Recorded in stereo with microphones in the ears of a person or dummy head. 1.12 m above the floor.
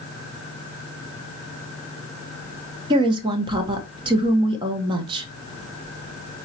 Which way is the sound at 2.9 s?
25° right (ahead or behind).